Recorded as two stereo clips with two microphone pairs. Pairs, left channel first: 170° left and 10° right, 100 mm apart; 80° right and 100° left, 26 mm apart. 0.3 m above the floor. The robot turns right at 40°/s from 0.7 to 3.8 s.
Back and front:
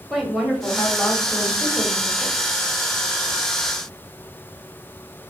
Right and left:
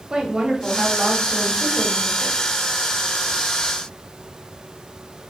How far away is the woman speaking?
About 1.3 m.